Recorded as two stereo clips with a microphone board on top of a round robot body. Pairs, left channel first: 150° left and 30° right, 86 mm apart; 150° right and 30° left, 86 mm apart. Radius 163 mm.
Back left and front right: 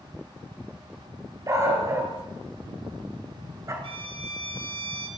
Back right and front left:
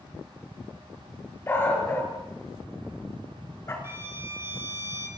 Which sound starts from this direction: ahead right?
A violin, at 3.8 s.